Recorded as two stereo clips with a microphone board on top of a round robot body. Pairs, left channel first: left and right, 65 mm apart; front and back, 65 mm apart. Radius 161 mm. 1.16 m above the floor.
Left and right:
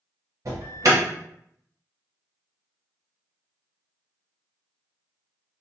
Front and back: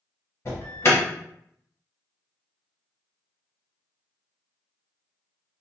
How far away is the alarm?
About 0.8 m.